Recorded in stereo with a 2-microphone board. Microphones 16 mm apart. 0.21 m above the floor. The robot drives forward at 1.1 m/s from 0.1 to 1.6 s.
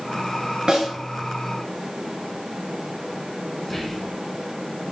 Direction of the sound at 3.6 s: 10° left (ahead or behind).